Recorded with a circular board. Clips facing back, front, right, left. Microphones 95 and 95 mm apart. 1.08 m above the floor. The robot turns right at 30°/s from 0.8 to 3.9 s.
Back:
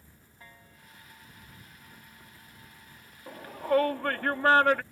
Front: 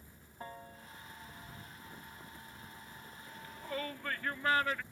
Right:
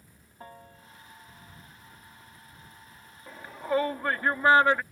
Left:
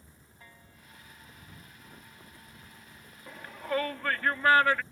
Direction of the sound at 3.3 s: 175° right.